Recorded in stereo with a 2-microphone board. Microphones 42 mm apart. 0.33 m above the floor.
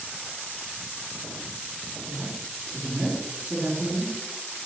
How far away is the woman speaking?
About 3.5 m.